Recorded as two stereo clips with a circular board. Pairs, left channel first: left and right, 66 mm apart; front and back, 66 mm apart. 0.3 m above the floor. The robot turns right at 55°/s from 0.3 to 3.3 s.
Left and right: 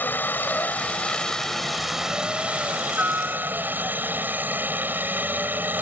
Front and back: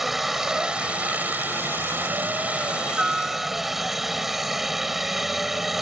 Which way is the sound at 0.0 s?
100° left.